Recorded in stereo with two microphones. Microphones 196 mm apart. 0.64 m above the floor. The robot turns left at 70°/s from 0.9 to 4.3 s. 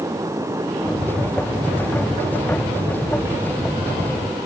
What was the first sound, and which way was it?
Only background noise.